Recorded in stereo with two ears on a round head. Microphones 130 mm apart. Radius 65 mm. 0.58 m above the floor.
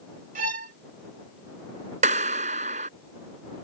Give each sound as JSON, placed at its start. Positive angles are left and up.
{"t": 0.3, "sound": "a violin", "side_deg": -55}
{"t": 2.0, "sound": "a clap", "side_deg": -50}